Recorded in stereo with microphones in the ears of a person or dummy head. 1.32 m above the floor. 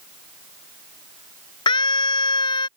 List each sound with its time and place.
1.7 s a scream: 25° left (ahead or behind)